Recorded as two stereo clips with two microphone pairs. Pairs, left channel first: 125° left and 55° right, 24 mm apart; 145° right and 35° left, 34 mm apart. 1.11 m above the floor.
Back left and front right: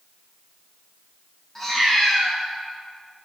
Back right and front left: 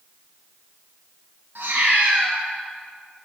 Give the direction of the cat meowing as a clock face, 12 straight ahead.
10 o'clock.